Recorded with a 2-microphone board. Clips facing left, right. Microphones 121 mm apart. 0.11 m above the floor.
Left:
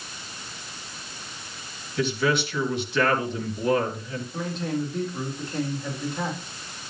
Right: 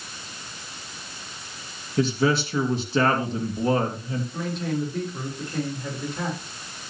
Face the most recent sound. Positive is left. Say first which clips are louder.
# left 1 dB
turn(degrees=-5)  # may be behind; listen again after turning